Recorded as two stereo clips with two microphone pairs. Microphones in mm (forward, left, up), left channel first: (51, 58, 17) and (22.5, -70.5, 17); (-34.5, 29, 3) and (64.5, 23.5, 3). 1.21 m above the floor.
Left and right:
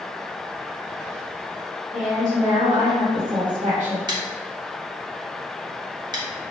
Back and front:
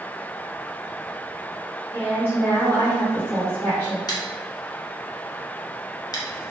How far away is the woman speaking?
About 1.1 m.